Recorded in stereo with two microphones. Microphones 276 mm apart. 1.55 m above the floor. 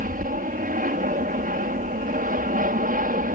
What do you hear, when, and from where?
0.0 s an aircraft: 30° right (ahead or behind)